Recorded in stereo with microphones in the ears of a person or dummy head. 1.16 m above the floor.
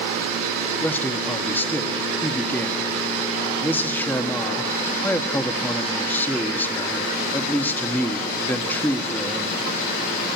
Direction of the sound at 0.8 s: 10° left (ahead or behind).